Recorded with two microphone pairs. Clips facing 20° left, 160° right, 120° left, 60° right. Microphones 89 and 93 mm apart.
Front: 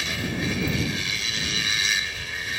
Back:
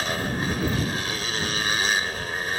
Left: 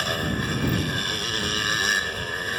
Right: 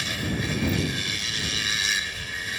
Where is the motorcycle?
160° left.